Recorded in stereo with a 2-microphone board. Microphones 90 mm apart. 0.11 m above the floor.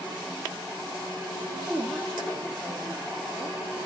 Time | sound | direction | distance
1.7 | a woman speaking | 5° left (ahead or behind) | 3 m